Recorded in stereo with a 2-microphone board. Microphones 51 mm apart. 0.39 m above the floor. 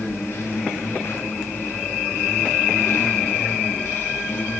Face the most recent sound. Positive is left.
turn(degrees=65)  # may be behind; listen again after turning